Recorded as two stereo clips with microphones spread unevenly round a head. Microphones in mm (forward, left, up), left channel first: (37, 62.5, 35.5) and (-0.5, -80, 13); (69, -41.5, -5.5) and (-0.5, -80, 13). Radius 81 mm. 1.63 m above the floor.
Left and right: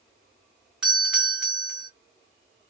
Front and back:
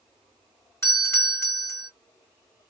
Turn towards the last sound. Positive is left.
turn(degrees=-20)